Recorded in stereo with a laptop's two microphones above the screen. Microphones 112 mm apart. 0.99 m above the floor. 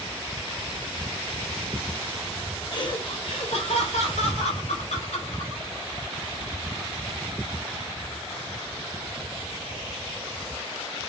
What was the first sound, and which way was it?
Laughter, 40° left (ahead or behind).